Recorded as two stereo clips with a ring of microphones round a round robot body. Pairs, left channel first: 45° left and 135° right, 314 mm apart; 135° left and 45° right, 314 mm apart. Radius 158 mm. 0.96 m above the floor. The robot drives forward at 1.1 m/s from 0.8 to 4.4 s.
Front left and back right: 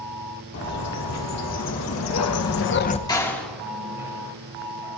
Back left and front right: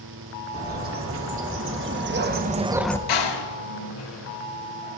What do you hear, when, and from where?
0.5 s a bird: 5° left, 2.5 m; by 3.0 s 80° left, 0.5 m
3.1 s a door slam: 125° left, 1.7 m; by 5.0 s 150° left, 3 m